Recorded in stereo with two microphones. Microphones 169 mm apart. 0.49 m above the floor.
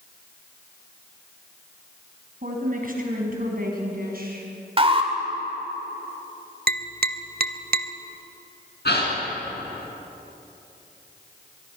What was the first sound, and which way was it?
A woman speaking, 55° right (ahead or behind).